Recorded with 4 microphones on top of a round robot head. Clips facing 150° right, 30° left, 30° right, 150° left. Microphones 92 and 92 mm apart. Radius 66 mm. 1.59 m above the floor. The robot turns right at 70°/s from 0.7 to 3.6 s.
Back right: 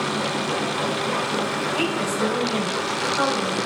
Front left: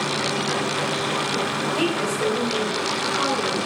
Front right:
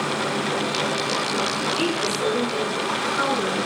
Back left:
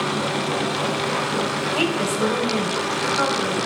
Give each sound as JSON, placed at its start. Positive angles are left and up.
{"t": 1.8, "sound": "a woman speaking", "azimuth_deg": 110, "distance_m": 6.5}